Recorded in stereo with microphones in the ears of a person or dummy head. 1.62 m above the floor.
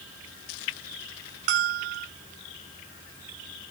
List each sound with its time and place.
1.5 s a bell: 50° right (ahead or behind)